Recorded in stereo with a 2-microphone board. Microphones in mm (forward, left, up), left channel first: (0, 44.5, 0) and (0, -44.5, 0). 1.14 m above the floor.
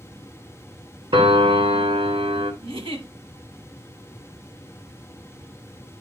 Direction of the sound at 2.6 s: 80° right.